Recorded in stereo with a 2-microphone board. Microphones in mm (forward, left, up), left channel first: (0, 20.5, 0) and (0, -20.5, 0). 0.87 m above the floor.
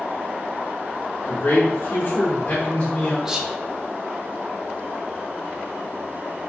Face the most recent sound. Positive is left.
turn(degrees=-15)  # may be behind; listen again after turning